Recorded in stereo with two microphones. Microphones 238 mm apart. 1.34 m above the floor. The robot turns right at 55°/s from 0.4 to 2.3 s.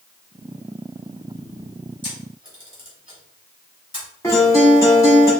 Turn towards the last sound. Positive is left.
turn(degrees=15)  # may be behind; listen again after turning